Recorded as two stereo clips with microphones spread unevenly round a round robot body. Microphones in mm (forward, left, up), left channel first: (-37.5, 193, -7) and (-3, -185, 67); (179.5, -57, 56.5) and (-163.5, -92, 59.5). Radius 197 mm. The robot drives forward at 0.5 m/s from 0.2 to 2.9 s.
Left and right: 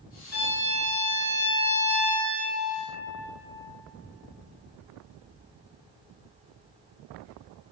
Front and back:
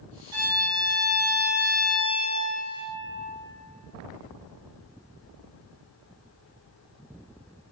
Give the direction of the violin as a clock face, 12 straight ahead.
8 o'clock.